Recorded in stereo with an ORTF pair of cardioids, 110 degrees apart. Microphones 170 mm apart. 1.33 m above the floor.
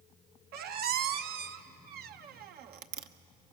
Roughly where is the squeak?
Ahead right.